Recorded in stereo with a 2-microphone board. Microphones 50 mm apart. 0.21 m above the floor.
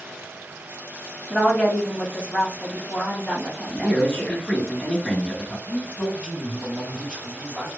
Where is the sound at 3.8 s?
25° left (ahead or behind), 2.0 m.